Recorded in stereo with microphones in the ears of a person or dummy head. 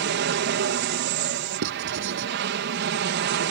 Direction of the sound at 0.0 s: 55° right (ahead or behind).